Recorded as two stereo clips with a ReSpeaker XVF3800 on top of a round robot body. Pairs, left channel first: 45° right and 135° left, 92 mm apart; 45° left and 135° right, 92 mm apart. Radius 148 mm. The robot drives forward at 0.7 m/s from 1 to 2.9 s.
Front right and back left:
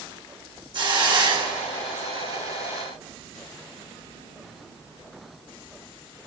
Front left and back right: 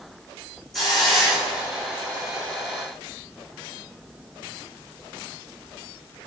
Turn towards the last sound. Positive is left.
turn(degrees=155)